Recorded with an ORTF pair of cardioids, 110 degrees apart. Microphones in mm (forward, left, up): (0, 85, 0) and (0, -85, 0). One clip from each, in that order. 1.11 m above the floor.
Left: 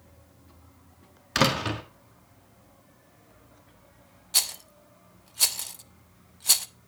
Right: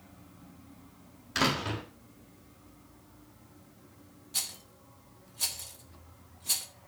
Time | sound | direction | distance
1.4 | a door slam | 45° left | 1.6 m
4.3 | a rattle | 50° left | 0.6 m